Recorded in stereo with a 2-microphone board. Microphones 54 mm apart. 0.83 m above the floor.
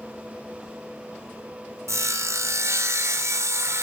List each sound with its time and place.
1.9 s sawing: 70° right (ahead or behind), 0.9 m